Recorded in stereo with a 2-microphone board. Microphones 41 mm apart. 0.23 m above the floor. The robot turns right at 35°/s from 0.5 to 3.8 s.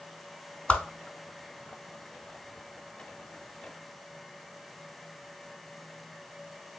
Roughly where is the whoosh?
Left.